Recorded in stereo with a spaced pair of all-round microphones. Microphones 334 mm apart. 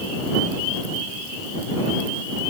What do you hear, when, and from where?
Only background noise.